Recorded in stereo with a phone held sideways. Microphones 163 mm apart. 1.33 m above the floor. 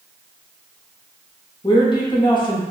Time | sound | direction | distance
1.6 | a woman speaking | 30° left (ahead or behind) | 0.7 m